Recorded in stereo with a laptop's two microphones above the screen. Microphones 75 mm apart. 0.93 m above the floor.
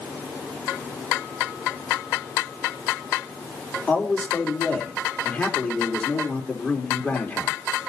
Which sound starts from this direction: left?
A man speaking, at 3.9 s.